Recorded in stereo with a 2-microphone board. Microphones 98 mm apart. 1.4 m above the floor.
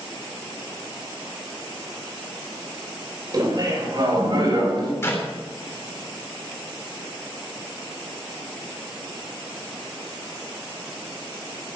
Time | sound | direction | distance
3.3 | laughter | 45° right (ahead or behind) | 6.5 m
5.0 | a clap | 25° left (ahead or behind) | 3.5 m